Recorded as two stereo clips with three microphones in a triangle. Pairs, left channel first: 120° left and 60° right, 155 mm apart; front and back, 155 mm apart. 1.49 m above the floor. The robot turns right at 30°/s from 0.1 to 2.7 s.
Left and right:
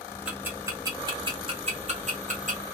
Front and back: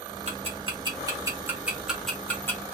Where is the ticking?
140° right, 1.1 m; by 2.6 s 70° right, 1.1 m.